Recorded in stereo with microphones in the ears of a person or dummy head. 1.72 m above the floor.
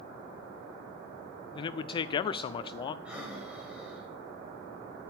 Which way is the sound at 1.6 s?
30° left (ahead or behind).